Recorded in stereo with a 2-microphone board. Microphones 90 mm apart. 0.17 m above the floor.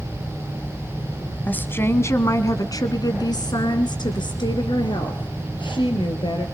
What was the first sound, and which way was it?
A woman speaking, 20° left (ahead or behind).